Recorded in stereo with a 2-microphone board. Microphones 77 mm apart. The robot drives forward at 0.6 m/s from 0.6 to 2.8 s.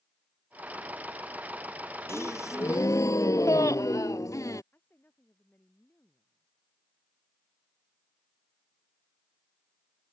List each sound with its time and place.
2.1 s a gasp: 40° left (ahead or behind); by 4.6 s 50° left (ahead or behind)
4.7 s a woman speaking: 30° left (ahead or behind)